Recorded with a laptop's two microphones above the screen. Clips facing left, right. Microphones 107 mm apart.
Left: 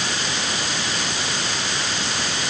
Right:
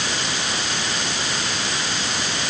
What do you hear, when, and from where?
Only background noise.